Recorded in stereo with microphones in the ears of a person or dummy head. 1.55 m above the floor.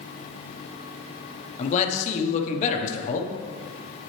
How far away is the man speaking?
About 1.1 m.